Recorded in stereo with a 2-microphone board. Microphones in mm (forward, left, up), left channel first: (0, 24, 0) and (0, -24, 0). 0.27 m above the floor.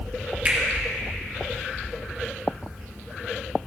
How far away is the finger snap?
About 2.5 m.